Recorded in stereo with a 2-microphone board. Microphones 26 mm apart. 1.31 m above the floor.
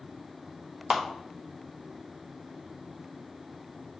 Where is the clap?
30° right (ahead or behind), 0.8 m.